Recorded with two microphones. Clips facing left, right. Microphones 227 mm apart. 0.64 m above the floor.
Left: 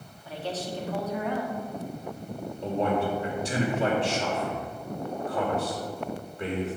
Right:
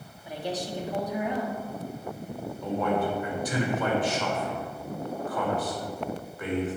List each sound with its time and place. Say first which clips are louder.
0.2 s a woman speaking: right 1 dB; 15° right (ahead or behind), 1.3 m
2.6 s a man speaking: left 1 dB; 25° left (ahead or behind), 2.5 m